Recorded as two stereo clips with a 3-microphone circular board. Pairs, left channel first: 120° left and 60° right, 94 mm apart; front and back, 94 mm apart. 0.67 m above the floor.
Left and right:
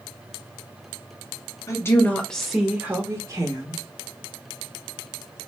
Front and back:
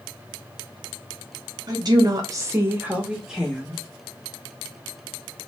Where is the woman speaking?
165° left, 0.8 m; by 3.8 s 85° right, 1.1 m.